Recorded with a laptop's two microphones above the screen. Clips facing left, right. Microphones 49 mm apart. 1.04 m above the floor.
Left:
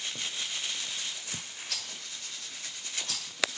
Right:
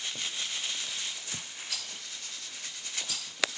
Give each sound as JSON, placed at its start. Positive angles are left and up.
{"t": 1.7, "sound": "a rattle", "side_deg": 60, "distance_m": 4.0}